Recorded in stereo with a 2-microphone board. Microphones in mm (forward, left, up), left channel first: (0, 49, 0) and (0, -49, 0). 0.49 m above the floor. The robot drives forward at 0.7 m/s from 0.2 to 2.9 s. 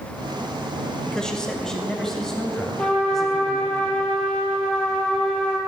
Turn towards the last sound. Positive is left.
turn(degrees=10)  # may be behind; listen again after turning